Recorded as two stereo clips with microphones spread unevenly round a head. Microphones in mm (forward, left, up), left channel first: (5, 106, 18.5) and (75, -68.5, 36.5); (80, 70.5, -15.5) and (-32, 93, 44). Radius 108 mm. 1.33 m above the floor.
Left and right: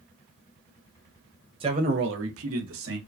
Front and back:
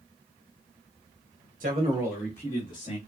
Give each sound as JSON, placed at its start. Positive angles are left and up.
{"t": 1.6, "sound": "a man speaking", "azimuth_deg": -135, "distance_m": 1.1}